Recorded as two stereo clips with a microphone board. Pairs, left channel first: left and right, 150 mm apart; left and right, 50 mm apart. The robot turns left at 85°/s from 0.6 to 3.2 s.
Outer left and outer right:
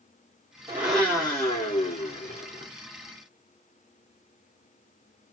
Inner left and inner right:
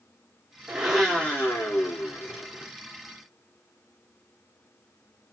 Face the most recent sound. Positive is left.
turn(degrees=-15)